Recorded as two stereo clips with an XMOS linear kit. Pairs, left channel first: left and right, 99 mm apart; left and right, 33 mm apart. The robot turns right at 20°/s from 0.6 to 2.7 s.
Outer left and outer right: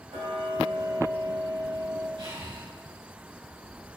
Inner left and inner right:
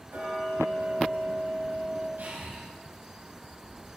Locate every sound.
0.1 s ticking: 80° right, 3 m; by 2.1 s 70° right (ahead or behind), 3 m
2.2 s breathing: 75° right (ahead or behind), 4 m; by 2.6 s 65° right (ahead or behind), 4 m